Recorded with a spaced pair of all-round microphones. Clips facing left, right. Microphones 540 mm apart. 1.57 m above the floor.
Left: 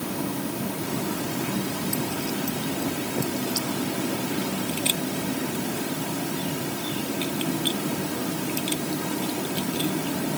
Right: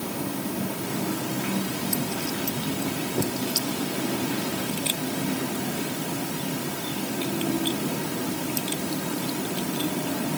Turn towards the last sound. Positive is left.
No sound to turn to.